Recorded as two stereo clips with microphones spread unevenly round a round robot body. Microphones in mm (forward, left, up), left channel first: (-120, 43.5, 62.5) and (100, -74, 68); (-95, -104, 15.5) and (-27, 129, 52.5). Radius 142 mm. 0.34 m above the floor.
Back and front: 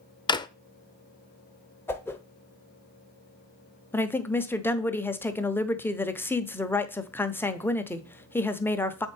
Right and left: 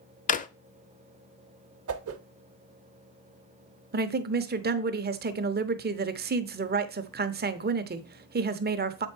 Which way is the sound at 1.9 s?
75° left.